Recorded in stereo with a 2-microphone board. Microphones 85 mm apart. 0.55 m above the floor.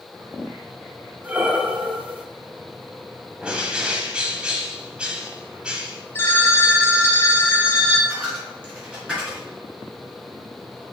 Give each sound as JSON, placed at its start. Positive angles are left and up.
{"t": 1.2, "sound": "breathing", "side_deg": -15, "distance_m": 0.8}
{"t": 3.4, "sound": "a bird", "side_deg": -10, "distance_m": 1.3}
{"t": 6.2, "sound": "a phone ringing", "side_deg": 25, "distance_m": 1.3}
{"t": 8.1, "sound": "a dropped coin", "side_deg": -10, "distance_m": 3.5}